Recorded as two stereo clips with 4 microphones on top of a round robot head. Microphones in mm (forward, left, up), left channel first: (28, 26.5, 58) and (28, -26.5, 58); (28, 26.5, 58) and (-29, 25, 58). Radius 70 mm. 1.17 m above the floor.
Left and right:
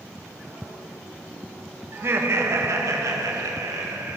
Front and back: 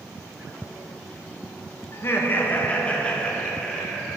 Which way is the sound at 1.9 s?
45° right.